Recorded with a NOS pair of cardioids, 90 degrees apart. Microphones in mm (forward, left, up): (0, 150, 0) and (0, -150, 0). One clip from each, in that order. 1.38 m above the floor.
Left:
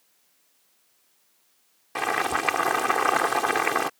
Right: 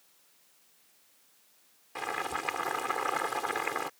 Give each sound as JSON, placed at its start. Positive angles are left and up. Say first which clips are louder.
{"t": 1.9, "sound": "boiling", "louder": "left 9 dB", "azimuth_deg": 70}